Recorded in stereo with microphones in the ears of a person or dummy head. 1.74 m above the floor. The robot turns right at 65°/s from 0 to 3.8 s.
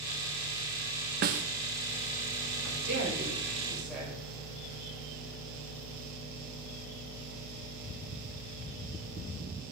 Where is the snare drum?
45° right (ahead or behind), 0.8 m; by 1.4 s 40° right (ahead or behind), 0.8 m.